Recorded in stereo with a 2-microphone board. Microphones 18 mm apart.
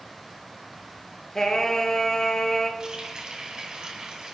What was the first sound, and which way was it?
Singing, 35° left (ahead or behind).